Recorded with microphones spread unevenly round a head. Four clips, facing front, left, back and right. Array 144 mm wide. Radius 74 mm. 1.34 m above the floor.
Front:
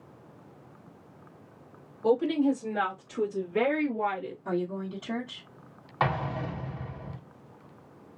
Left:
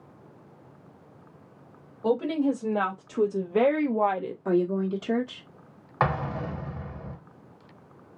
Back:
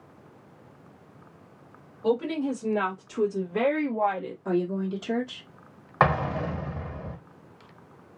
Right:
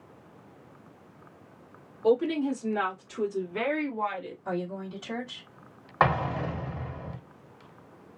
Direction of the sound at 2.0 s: 90° left.